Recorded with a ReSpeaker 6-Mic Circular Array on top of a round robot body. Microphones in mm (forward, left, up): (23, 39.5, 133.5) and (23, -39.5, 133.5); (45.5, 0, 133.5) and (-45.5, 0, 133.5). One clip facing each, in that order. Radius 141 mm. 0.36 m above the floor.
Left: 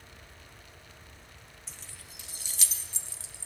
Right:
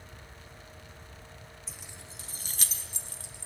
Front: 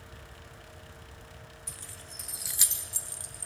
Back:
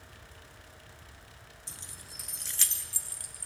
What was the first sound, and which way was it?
Keys jangling, 175° right.